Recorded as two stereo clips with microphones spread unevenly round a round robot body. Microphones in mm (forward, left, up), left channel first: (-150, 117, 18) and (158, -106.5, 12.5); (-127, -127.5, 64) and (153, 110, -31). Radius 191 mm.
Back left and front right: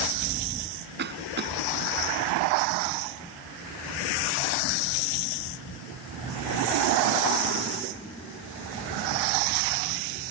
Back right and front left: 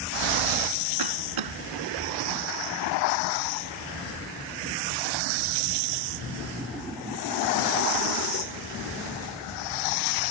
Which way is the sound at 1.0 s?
25° left.